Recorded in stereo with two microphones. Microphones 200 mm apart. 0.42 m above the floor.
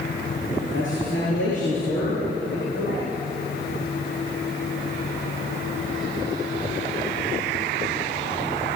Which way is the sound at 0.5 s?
80° left.